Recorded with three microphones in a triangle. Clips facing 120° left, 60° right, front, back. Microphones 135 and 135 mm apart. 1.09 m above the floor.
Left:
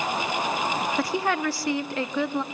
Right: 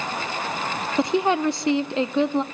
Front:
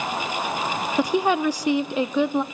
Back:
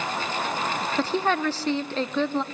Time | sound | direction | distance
1.0 | a woman speaking | 55° right | 0.6 m